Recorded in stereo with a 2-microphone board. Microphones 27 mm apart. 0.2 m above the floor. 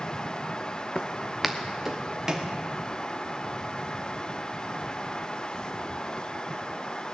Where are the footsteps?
35° left (ahead or behind), 0.9 m; by 2.5 s 15° right (ahead or behind), 3 m.